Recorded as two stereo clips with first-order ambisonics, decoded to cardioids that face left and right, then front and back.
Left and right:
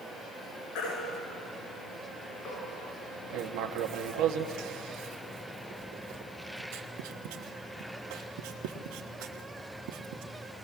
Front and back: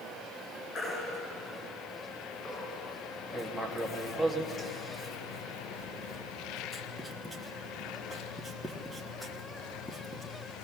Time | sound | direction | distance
0.8 | a baby crying | 60° left | 7.5 m
3.3 | writing | 85° right | 1.2 m